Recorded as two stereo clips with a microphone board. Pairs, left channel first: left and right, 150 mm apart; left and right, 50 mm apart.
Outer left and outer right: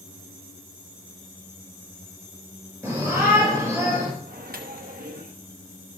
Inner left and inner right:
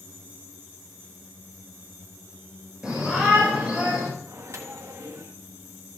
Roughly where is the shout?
Centre.